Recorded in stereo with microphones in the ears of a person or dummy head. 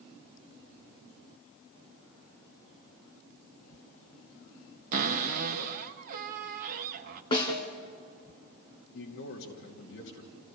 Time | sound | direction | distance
4.9 | a cupboard door | 45° right (ahead or behind) | 1.3 m
7.3 | a snare drum | 20° left (ahead or behind) | 2.5 m
8.9 | a man speaking | 55° left (ahead or behind) | 2.5 m